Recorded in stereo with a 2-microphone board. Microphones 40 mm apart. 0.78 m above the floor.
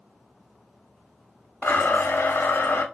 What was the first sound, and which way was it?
A blender, 75° left (ahead or behind).